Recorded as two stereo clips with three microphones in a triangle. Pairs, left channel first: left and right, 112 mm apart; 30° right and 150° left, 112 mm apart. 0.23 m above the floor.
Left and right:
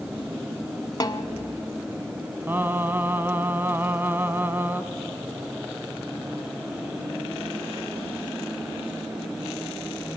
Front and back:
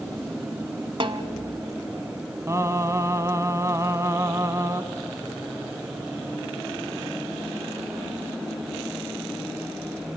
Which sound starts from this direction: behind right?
Singing, at 2.5 s.